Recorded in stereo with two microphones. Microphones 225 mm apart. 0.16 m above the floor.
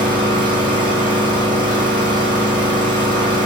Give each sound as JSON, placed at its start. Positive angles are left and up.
{"t": 0.0, "sound": "an engine running", "side_deg": -20, "distance_m": 1.5}